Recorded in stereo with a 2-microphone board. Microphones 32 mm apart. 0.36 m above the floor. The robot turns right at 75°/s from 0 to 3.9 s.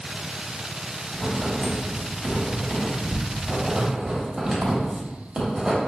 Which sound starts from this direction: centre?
Writing, at 1.1 s.